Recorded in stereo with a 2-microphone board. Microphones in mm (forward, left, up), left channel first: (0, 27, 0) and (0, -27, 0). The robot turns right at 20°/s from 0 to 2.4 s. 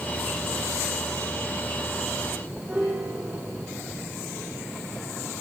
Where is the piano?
35° right (ahead or behind), 7 m.